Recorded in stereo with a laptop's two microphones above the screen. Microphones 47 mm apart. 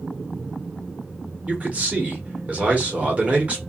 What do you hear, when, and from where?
1.5 s a man speaking: 35° right (ahead or behind), 1.2 m